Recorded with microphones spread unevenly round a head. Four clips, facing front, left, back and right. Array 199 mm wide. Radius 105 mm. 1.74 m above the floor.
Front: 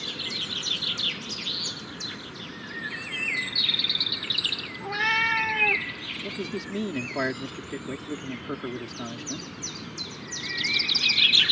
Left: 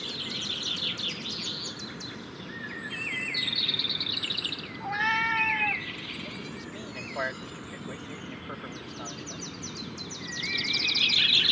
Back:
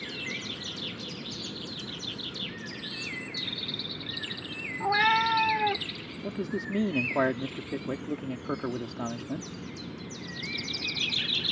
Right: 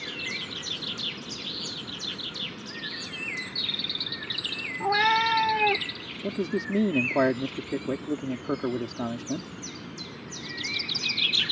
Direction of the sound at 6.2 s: 100° right.